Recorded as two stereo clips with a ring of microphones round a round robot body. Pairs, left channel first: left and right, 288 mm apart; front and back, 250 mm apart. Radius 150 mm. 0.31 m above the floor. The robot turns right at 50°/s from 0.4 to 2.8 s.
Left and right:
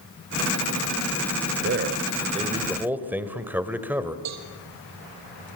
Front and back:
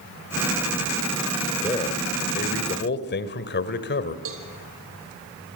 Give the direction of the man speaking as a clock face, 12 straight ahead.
2 o'clock.